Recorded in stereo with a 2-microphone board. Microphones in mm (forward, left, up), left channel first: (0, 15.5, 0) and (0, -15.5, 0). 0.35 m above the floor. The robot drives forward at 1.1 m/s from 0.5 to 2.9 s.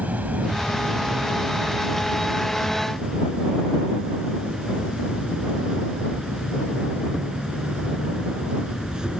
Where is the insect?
60° right (ahead or behind); by 9.2 s 20° right (ahead or behind).